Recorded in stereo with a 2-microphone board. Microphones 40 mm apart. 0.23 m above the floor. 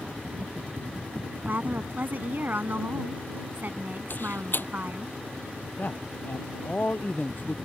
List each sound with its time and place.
1.5 s a woman speaking: 50° right (ahead or behind)
4.1 s a door slam: 55° left (ahead or behind)
5.8 s a man speaking: 45° left (ahead or behind)